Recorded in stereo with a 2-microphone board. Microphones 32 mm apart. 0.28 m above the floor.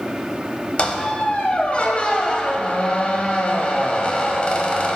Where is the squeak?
40° left (ahead or behind), 0.7 m.